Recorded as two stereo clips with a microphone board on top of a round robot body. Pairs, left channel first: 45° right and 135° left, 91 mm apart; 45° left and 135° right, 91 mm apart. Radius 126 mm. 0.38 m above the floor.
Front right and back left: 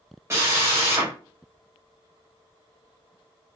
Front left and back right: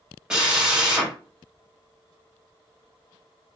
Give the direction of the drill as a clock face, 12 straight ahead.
7 o'clock.